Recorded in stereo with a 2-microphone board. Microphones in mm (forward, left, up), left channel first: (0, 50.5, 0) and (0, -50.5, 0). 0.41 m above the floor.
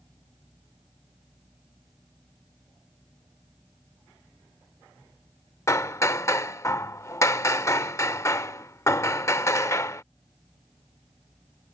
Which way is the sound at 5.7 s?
30° left (ahead or behind).